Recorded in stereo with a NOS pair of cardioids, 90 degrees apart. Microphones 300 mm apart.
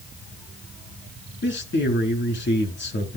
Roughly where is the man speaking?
Ahead left.